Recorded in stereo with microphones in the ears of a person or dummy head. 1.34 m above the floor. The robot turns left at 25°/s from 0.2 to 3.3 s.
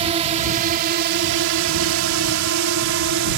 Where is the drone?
35° right; by 3.4 s 115° right.